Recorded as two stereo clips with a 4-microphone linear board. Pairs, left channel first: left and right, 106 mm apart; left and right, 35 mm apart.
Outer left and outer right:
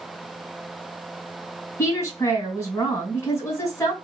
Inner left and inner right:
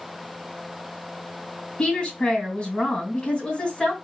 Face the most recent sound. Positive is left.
turn(degrees=30)  # may be behind; listen again after turning